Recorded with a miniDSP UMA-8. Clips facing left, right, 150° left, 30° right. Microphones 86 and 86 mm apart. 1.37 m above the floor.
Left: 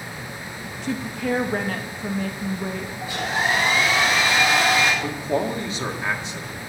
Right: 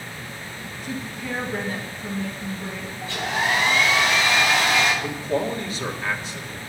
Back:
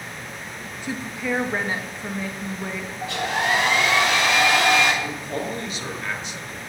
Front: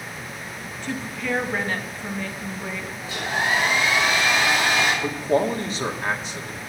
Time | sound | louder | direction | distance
0.8 | a woman speaking | left 6 dB, back 1 dB | 75° left | 2 m
3.0 | a hair dryer | even, back 2 dB | 165° left | 8 m
5.0 | a man speaking | left 1 dB, front 7 dB | 20° left | 2.5 m